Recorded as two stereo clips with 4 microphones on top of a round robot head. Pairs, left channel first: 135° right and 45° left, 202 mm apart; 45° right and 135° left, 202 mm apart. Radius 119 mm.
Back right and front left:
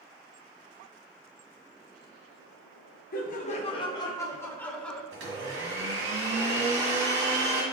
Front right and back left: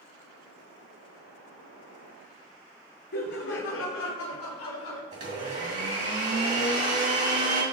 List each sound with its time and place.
3.1 s laughter: 90° right, 0.8 m; by 5.0 s 50° right, 1.4 m
5.1 s a blender: 80° left, 2.5 m